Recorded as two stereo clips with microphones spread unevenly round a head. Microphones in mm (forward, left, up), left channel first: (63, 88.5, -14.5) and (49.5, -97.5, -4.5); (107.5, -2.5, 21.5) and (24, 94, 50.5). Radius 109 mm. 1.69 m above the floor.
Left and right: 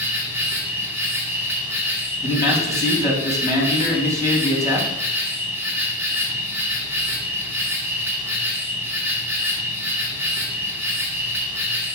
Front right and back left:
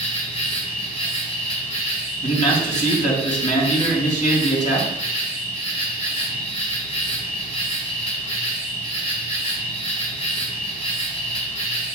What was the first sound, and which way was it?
An insect, 30° right.